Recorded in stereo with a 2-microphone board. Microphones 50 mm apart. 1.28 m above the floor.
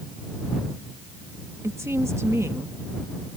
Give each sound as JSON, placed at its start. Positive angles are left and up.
{"t": 1.6, "sound": "a woman speaking", "side_deg": -80}